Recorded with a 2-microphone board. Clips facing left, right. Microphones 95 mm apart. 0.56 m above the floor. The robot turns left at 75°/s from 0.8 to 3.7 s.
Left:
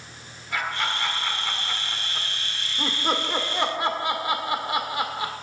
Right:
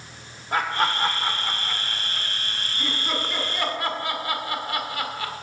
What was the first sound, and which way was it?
Laughter, 50° right (ahead or behind).